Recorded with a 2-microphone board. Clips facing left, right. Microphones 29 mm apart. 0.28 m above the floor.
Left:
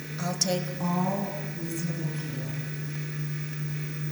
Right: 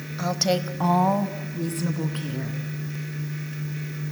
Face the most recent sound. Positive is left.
turn(degrees=-70)  # may be behind; listen again after turning